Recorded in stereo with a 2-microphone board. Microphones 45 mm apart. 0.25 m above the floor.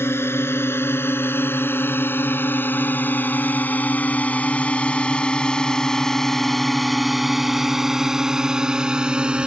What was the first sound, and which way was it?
A drone, 65° left (ahead or behind).